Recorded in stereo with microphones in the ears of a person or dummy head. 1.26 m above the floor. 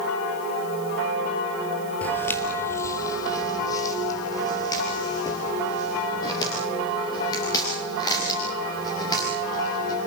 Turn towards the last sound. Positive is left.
turn(degrees=20)  # may be behind; listen again after turning